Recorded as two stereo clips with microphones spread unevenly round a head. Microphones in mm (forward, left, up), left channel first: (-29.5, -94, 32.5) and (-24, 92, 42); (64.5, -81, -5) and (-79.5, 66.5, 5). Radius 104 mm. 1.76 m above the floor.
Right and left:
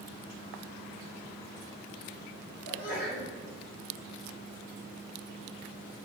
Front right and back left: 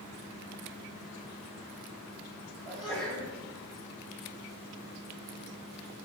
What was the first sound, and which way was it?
A sneeze, 130° right.